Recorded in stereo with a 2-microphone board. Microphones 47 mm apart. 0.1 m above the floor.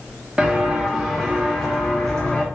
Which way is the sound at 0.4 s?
20° right (ahead or behind).